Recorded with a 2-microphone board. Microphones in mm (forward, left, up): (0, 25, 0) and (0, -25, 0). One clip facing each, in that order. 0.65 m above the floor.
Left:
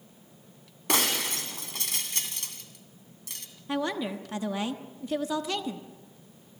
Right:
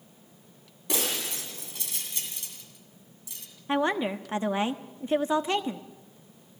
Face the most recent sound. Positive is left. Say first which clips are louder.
# right 4 dB
turn(degrees=-35)  # may be behind; listen again after turning